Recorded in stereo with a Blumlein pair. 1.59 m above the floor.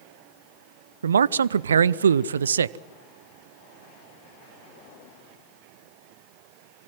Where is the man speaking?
70° right, 0.6 m.